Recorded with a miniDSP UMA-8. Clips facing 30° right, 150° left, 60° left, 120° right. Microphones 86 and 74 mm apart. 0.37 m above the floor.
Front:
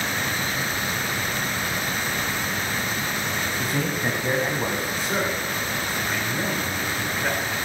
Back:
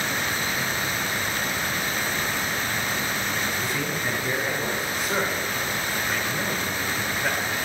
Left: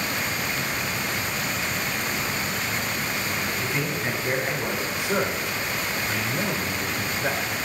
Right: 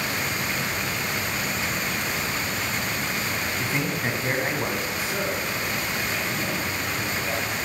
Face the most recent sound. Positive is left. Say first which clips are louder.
# back 1 dB, left 2 dB
turn(degrees=60)